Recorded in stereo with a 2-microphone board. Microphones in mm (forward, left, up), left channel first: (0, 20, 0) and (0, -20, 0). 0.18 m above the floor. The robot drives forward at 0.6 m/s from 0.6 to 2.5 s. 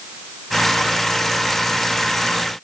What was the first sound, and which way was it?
Only background noise.